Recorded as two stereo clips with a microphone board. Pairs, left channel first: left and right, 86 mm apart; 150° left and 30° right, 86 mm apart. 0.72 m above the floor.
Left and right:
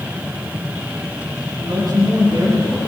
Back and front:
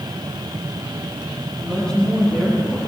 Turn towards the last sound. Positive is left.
turn(degrees=-140)